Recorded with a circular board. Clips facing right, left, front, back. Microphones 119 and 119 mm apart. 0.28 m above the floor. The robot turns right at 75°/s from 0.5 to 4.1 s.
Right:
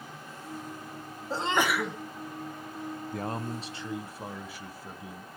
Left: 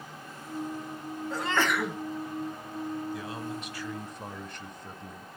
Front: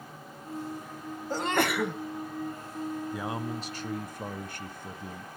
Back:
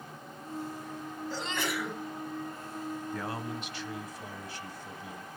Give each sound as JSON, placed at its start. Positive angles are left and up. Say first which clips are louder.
{"t": 1.3, "sound": "a sneeze", "louder": "right 1 dB, front 8 dB", "azimuth_deg": -35, "distance_m": 1.9}
{"t": 3.1, "sound": "a man speaking", "louder": "right 2 dB, front 3 dB", "azimuth_deg": -80, "distance_m": 1.4}